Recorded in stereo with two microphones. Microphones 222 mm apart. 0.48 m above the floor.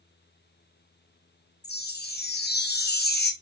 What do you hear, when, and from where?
1.6 s a chime: 45° left (ahead or behind), 0.6 m